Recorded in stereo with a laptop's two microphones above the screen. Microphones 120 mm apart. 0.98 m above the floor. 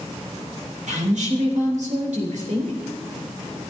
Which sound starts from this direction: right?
A woman speaking, at 0.9 s.